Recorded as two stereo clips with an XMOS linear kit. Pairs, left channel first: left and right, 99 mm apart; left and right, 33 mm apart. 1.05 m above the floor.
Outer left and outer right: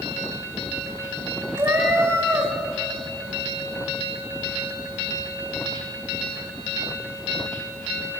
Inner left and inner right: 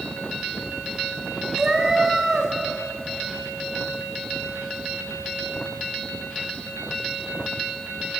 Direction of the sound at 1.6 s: 30° right (ahead or behind).